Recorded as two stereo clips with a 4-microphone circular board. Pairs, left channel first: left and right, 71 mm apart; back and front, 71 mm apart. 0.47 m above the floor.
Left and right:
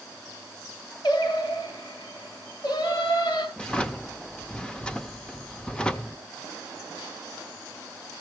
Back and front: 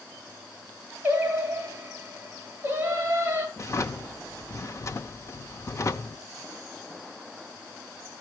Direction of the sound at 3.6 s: 165° left.